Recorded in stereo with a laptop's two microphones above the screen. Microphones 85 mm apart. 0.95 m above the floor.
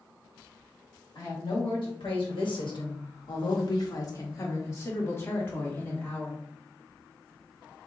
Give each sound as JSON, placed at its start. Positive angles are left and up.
{"t": 1.1, "sound": "a woman speaking", "side_deg": 65, "distance_m": 1.4}